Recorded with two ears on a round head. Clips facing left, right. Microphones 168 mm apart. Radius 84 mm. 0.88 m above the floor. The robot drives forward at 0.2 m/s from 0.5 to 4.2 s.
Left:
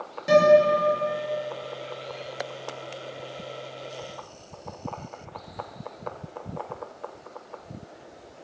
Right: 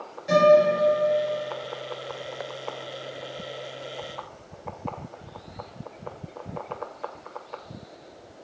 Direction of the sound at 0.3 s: 65° left (ahead or behind).